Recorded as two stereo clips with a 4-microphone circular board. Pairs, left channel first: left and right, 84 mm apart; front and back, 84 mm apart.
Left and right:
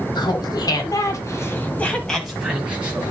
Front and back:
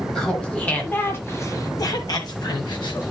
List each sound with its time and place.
0.1 s laughter: 80° left, 2 m; by 3.1 s 25° right, 2.0 m